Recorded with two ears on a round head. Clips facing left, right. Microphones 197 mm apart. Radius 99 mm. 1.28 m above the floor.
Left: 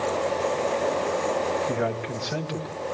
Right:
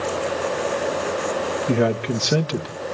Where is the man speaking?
55° right (ahead or behind), 2.5 m; by 2.7 s 70° right (ahead or behind), 1.3 m.